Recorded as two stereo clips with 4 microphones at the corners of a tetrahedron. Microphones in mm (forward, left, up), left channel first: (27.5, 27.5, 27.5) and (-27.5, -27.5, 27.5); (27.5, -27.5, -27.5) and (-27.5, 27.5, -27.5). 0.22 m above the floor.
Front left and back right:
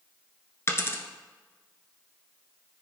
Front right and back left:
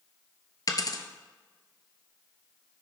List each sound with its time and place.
0.7 s a dropped coin: 10° right, 1.0 m